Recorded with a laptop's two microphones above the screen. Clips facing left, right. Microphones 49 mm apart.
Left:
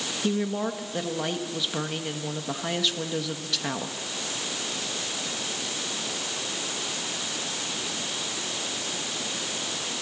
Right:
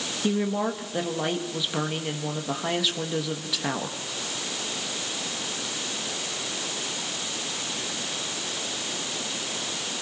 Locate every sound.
0.2 s a woman speaking: 5° right (ahead or behind), 1.1 m